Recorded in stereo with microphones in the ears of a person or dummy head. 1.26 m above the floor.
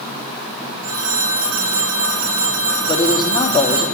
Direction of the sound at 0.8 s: 85° right.